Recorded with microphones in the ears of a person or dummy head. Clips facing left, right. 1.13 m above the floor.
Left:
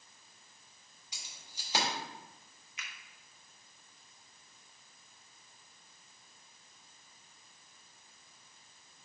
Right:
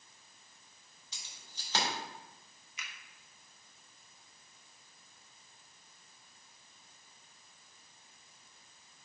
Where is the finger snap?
85° right, 1.2 m.